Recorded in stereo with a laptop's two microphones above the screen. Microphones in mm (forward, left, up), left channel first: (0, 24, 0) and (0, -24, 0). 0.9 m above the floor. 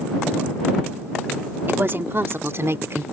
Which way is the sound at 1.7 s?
45° right (ahead or behind).